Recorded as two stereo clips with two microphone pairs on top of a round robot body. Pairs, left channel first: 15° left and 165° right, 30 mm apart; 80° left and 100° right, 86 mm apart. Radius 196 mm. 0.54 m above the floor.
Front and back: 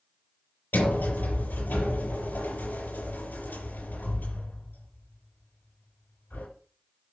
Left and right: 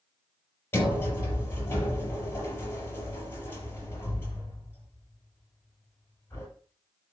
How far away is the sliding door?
About 5.5 m.